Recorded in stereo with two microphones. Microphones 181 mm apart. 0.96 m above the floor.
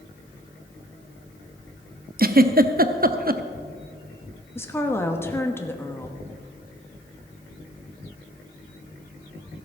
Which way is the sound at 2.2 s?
55° right (ahead or behind).